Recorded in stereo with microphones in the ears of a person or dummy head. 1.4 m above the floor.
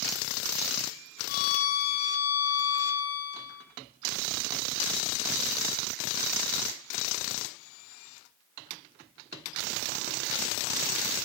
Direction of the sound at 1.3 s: 50° left (ahead or behind).